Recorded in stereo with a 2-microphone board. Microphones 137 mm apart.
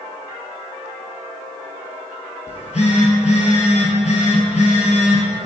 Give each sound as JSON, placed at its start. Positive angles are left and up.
{"t": 2.5, "sound": "a phone buzzing", "side_deg": 60, "distance_m": 0.5}